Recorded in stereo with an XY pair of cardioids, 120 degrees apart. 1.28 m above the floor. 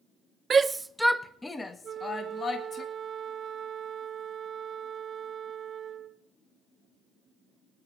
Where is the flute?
45° right, 1.3 m.